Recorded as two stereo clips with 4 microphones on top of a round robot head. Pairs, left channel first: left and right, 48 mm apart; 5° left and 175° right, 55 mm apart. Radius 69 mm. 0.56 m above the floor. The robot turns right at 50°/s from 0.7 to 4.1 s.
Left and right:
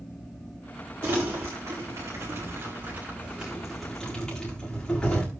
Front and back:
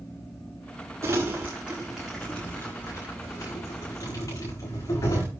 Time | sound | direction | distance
1.0 | crumpling | 135° right | 8 m